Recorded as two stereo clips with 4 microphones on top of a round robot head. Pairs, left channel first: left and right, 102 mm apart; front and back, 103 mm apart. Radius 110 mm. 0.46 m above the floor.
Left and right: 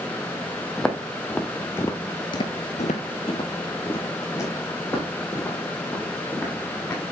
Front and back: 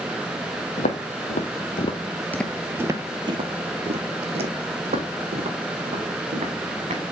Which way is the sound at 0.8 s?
5° left.